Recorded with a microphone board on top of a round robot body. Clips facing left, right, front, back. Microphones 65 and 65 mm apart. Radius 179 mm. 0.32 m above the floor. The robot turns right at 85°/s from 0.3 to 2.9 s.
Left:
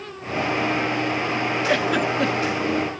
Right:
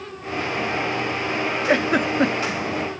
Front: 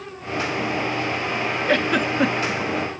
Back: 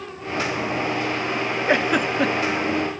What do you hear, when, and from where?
1.7 s a giggle: 130° right, 0.8 m; by 2.6 s 50° right, 0.8 m